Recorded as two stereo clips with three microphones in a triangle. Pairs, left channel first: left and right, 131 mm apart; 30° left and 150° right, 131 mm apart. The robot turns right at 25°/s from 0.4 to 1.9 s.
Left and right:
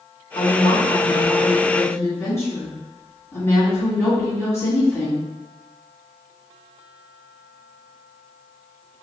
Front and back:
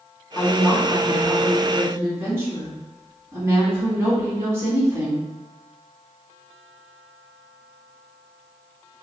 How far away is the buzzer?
I don't hear a buzzer.